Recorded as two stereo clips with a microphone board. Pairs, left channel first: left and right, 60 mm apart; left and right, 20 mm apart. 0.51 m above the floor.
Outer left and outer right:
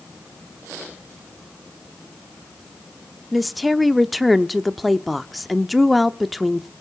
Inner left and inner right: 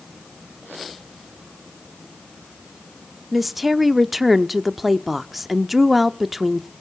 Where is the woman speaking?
Centre (ahead or behind), 0.8 m.